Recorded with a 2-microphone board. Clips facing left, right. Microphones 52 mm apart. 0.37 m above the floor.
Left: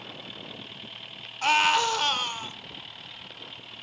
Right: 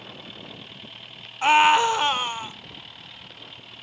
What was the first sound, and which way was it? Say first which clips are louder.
A scream: right 6 dB; 20° right (ahead or behind).